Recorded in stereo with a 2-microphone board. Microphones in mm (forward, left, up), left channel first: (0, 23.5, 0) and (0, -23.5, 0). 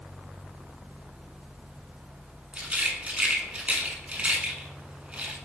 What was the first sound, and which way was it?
A rattle, 25° right (ahead or behind).